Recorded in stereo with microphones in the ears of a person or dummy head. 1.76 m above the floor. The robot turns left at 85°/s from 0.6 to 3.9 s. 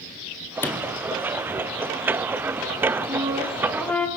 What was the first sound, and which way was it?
A sliding door, 15° left.